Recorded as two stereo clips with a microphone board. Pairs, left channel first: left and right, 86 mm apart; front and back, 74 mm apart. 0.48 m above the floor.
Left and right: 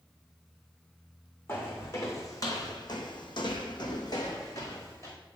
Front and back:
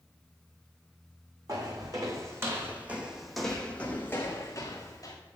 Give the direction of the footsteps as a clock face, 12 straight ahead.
7 o'clock.